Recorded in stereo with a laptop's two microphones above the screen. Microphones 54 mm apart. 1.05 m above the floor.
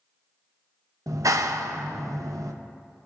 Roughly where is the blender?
No blender in this recording.